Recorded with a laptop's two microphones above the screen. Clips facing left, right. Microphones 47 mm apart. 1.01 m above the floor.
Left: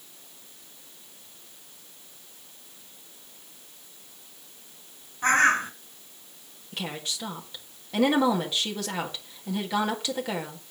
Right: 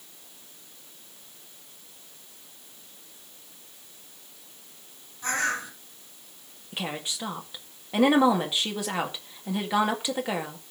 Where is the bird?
45° left (ahead or behind), 1.4 m.